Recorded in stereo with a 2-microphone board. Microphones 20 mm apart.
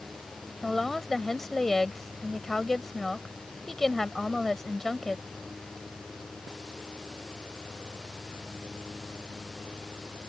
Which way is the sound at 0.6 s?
15° left (ahead or behind).